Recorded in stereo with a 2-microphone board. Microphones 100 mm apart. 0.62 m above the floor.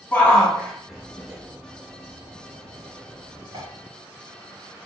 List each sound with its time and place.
0.1 s a shout: 20° left (ahead or behind), 1.4 m; by 3.6 s 50° right (ahead or behind), 1.7 m